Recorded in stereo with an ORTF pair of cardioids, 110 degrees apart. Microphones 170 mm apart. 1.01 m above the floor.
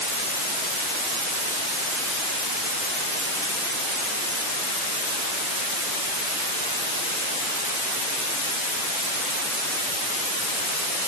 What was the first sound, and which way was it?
Only background noise.